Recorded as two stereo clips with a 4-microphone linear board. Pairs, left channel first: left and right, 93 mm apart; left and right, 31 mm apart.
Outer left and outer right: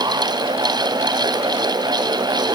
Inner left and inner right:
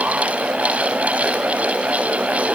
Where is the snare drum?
I don't hear a snare drum.